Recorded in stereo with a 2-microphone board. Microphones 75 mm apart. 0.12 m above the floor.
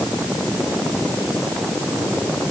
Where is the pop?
I don't hear a pop.